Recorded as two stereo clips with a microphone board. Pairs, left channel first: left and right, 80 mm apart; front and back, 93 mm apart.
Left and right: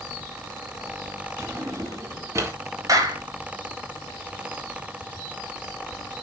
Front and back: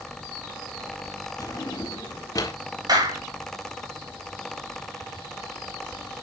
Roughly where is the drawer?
Ahead right.